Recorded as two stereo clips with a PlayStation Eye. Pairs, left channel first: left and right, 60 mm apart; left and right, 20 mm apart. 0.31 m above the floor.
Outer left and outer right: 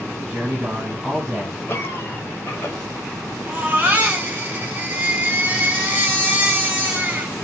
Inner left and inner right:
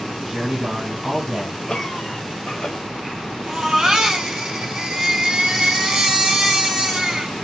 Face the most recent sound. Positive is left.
turn(degrees=-30)  # may be behind; listen again after turning